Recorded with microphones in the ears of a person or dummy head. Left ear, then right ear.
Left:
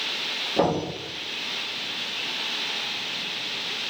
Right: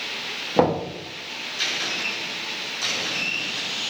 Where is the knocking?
70° right (ahead or behind), 1.4 m.